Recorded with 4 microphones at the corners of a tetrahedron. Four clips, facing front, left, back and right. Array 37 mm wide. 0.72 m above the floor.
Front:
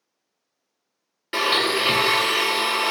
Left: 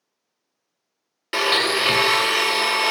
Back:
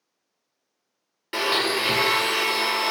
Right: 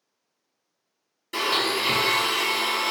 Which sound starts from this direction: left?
A blender, at 1.3 s.